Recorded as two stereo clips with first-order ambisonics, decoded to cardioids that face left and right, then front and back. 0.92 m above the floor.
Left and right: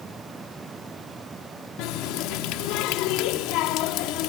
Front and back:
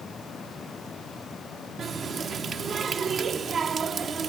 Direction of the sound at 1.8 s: 115° left.